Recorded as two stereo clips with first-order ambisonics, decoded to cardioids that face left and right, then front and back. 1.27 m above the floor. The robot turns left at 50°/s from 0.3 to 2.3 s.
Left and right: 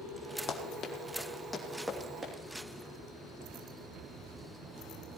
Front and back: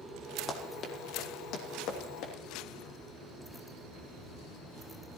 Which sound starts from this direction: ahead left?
Running footsteps, at 0.5 s.